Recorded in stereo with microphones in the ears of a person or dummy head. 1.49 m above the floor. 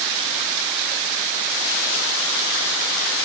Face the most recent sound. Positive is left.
No sound to turn to.